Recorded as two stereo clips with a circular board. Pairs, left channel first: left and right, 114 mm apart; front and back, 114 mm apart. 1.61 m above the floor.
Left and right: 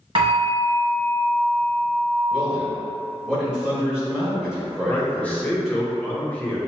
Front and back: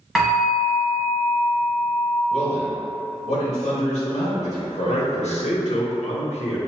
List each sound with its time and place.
0.1 s a bell: 90° right, 1.2 m
2.3 s a man speaking: 5° right, 1.8 m
4.9 s a man speaking: 15° left, 0.9 m